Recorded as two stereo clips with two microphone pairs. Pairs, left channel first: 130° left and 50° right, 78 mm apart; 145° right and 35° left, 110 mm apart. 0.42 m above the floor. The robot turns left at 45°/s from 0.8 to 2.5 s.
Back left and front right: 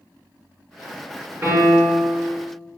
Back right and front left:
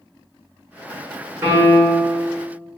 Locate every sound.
1.4 s a piano: 25° right, 1.1 m; by 2.1 s 55° right, 1.1 m